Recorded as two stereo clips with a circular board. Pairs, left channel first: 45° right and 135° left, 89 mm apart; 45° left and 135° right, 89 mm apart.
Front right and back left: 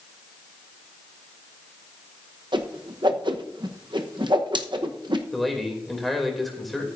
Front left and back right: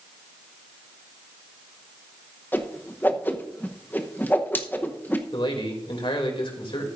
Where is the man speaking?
45° left, 2.5 m.